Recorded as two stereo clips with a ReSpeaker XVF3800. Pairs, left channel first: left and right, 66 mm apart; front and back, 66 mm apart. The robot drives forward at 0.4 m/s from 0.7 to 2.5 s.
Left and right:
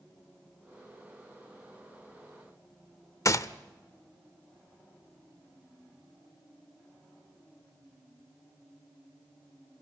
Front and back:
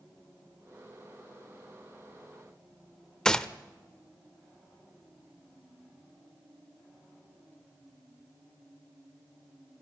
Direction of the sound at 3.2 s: 75° left.